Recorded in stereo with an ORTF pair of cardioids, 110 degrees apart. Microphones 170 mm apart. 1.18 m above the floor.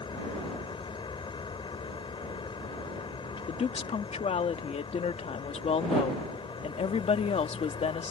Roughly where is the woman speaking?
Ahead left.